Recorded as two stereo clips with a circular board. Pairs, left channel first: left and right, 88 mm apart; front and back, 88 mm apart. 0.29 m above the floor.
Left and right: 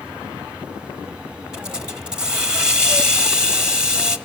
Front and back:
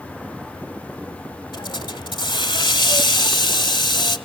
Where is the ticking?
No ticking in this recording.